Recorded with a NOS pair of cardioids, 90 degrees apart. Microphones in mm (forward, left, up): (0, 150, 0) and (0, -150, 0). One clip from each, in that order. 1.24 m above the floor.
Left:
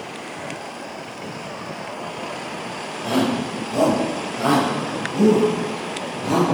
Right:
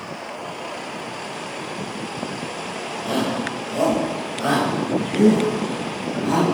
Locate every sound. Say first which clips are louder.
3.0 s a shout: left 2 dB; 15° left, 5.5 m; by 6.4 s 5° left, 9 m